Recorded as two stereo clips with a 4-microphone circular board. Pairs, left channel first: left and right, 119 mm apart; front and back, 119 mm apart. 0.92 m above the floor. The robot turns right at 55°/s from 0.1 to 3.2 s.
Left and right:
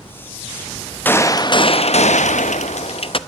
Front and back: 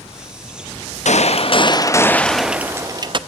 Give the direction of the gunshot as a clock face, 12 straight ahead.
11 o'clock.